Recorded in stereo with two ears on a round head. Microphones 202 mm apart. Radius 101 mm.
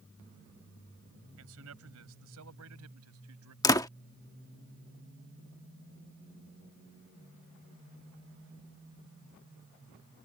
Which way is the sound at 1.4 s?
70° right (ahead or behind).